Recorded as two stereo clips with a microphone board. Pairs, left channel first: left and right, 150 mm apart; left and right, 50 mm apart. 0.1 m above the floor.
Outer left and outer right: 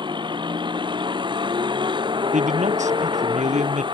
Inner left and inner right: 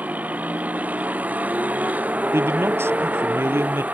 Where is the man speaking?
50° right (ahead or behind).